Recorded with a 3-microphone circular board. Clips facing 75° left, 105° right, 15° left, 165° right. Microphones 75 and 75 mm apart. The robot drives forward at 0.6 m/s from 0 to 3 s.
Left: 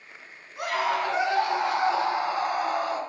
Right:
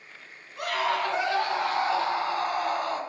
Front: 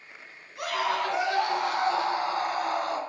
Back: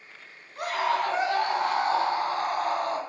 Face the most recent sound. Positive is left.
turn(degrees=160)